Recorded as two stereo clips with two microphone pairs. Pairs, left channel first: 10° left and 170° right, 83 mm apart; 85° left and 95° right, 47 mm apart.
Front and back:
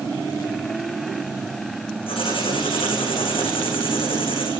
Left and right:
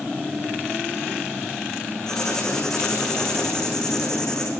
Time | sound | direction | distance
2.1 | writing | 5° left | 9.5 m